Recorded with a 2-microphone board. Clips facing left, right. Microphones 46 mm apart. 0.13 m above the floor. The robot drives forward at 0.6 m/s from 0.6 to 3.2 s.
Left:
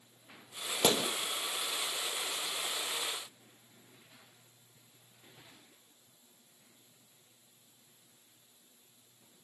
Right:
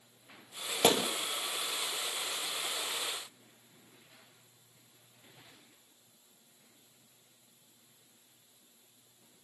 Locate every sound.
0.8 s a gunshot: 25° right (ahead or behind), 2 m